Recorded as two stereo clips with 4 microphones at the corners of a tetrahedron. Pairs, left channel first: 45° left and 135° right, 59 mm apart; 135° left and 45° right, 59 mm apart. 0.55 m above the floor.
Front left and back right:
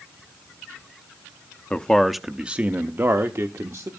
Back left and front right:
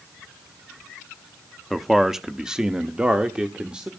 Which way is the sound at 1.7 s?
40° left.